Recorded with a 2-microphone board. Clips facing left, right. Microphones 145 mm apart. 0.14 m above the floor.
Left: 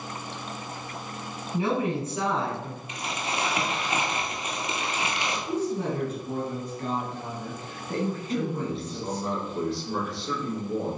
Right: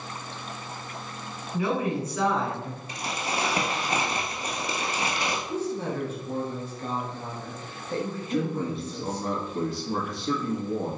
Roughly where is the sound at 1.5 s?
Left.